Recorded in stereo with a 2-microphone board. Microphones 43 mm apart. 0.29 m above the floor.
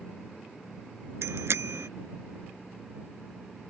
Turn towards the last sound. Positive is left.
turn(degrees=-70)  # may be behind; listen again after turning